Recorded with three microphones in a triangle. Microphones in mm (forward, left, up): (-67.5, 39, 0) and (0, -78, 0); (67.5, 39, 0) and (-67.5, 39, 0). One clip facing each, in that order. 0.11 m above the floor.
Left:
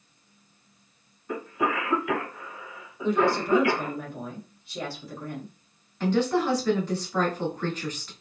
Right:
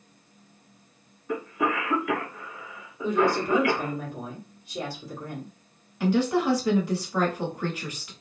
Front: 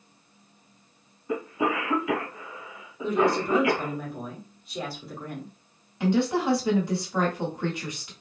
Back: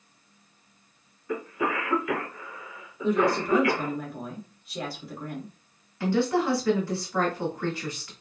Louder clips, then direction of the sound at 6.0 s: Right 1 dB, even; straight ahead.